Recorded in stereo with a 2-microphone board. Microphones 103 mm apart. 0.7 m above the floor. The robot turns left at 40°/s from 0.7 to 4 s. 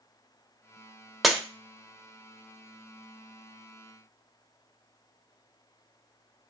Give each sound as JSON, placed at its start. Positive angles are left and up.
{"t": 1.2, "sound": "breaking glass", "side_deg": 0, "distance_m": 0.5}